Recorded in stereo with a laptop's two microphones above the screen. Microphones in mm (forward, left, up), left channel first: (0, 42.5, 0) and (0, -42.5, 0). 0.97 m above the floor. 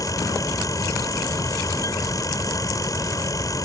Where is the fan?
40° left (ahead or behind).